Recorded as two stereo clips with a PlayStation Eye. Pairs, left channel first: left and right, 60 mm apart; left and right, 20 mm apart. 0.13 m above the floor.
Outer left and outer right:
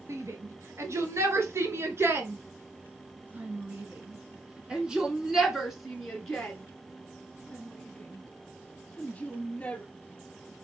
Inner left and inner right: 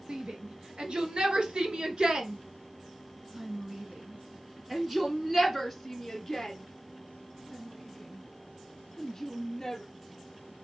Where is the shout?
50° right (ahead or behind), 2.5 m; by 9.8 s 20° left (ahead or behind), 3.5 m.